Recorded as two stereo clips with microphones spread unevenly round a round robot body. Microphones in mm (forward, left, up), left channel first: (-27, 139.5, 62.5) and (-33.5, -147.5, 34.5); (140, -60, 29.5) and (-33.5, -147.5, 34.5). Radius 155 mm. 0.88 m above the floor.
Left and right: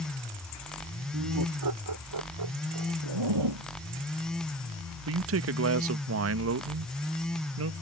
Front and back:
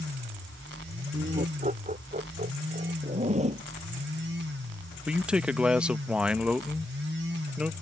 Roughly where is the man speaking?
Right.